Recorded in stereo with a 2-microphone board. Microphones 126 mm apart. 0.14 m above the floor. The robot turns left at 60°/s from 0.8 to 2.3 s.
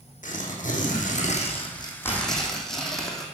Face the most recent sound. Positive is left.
turn(degrees=5)